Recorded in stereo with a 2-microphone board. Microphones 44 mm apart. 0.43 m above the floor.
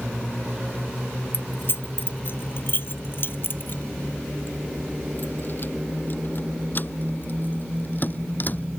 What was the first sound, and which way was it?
Keys jangling, 55° left (ahead or behind).